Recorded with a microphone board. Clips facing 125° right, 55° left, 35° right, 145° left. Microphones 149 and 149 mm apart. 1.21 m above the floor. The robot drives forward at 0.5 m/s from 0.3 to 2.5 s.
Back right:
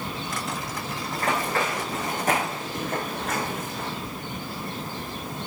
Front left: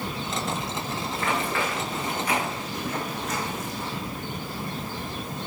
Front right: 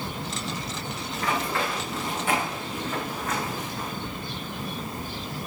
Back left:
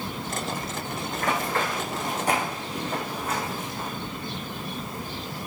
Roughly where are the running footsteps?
Behind.